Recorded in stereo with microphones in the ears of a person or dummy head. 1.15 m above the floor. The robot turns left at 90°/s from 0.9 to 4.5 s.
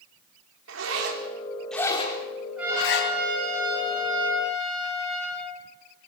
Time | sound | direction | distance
0.7 | a zipper | 75° right (ahead or behind) | 4 m
2.6 | a trumpet | straight ahead | 8.5 m